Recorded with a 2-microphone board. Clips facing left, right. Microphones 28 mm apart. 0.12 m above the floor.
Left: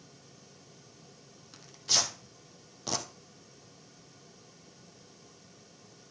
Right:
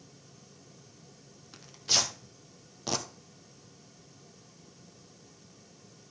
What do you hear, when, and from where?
1.5 s tearing paper: 15° right (ahead or behind), 1.2 m